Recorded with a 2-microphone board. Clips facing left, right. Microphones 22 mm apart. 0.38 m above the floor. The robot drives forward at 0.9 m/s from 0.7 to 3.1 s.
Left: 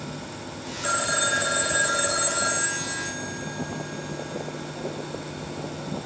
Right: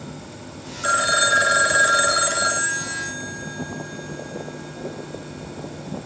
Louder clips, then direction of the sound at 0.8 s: Right 6 dB; 35° right (ahead or behind).